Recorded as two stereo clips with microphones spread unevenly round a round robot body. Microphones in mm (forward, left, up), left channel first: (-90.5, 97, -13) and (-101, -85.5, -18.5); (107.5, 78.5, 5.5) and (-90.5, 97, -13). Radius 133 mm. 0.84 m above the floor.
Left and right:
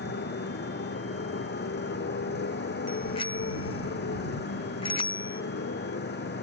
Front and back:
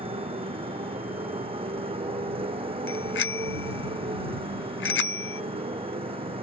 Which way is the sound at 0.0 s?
110° left.